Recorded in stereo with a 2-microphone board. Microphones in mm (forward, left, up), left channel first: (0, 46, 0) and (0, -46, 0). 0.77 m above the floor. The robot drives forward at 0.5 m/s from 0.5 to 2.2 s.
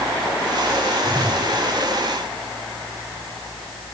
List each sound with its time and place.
1.0 s a whoosh: 5° left (ahead or behind), 9 m